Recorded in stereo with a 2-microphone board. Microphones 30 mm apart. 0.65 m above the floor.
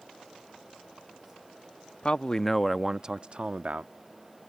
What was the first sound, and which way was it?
A man speaking, 40° left (ahead or behind).